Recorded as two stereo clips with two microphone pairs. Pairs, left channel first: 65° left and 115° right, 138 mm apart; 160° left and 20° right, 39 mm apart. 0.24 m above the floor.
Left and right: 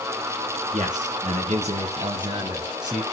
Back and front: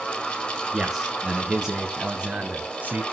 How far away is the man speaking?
About 2.5 m.